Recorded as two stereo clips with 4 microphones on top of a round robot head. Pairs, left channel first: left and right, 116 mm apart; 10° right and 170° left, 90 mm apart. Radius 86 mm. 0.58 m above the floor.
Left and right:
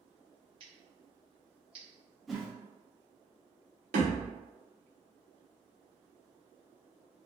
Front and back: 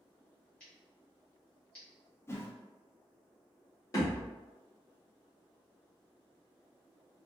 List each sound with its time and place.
0.6 s scissors: 85° right, 1.4 m
2.3 s a whoosh: straight ahead, 0.7 m
3.9 s a thud: 70° right, 1.1 m